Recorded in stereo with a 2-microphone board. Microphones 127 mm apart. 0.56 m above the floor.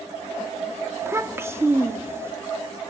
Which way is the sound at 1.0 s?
20° right (ahead or behind).